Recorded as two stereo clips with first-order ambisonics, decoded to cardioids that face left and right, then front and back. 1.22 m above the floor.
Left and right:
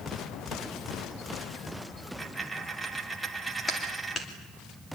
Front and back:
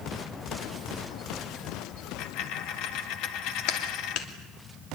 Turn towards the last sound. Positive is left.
turn(degrees=20)